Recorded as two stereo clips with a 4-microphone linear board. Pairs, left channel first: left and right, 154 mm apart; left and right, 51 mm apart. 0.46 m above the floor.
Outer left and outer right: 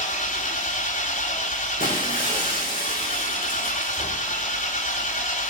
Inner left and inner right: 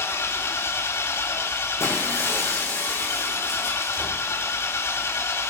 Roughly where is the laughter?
No laughter in this recording.